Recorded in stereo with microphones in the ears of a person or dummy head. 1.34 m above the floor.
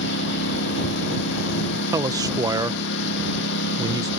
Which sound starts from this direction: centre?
A man speaking, at 1.9 s.